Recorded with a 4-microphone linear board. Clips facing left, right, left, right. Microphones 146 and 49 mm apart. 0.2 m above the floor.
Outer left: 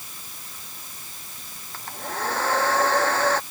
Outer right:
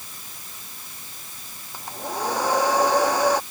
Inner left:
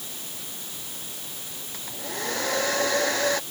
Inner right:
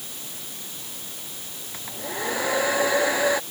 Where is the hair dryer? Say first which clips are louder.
Outer right 2 dB, inner right 3 dB; 15° right (ahead or behind).